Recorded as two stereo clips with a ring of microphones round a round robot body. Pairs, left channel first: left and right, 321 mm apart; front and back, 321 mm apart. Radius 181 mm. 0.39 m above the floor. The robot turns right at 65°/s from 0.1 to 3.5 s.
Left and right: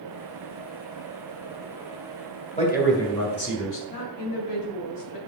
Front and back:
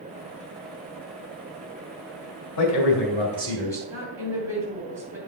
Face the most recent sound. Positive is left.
turn(degrees=100)